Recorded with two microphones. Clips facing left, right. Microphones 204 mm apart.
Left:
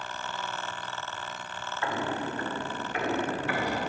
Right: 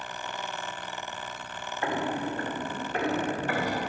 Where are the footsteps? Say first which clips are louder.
Right 2 dB; 30° right (ahead or behind), 2 m; by 3.8 s 45° right (ahead or behind), 4 m.